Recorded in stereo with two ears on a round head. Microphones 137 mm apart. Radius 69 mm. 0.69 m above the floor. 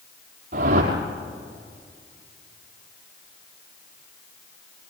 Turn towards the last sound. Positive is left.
turn(degrees=-50)  # may be behind; listen again after turning